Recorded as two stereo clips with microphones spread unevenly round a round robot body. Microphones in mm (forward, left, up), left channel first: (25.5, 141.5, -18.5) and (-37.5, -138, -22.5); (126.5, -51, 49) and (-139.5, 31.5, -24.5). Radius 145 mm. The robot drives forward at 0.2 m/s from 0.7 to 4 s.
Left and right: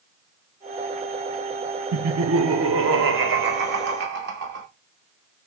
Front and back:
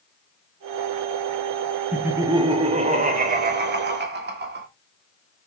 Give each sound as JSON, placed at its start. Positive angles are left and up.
{"t": 1.9, "sound": "laughter", "azimuth_deg": -125, "distance_m": 0.5}